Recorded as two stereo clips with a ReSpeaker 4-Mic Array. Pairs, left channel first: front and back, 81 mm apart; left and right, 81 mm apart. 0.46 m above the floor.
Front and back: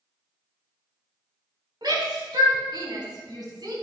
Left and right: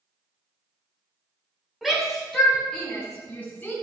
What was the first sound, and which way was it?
A shout, 175° right.